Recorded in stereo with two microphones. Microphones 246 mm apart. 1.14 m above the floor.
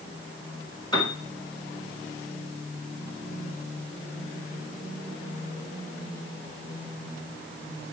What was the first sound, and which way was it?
A piano, 20° left (ahead or behind).